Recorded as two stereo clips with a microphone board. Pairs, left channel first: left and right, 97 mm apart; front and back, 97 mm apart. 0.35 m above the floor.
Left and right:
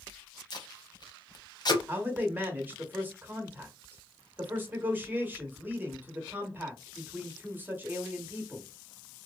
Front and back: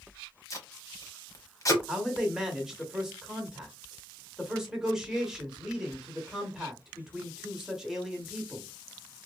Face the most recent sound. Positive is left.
turn(degrees=-105)